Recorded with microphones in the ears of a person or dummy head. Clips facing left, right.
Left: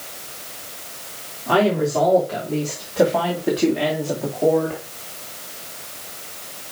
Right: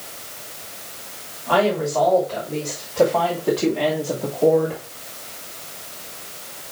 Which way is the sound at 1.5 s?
40° left (ahead or behind).